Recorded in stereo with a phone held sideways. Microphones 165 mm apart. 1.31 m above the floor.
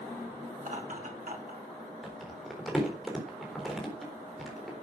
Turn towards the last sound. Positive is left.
turn(degrees=0)  # may be behind; listen again after turning